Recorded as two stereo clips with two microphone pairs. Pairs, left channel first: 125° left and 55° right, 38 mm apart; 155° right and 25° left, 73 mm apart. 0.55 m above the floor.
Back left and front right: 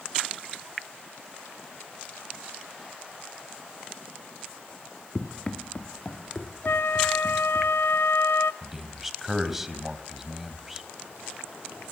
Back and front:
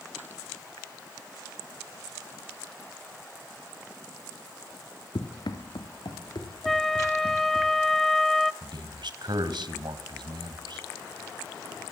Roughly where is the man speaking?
Ahead left.